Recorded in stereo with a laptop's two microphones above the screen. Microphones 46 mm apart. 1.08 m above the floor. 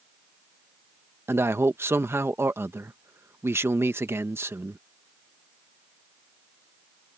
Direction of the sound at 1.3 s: 60° right (ahead or behind).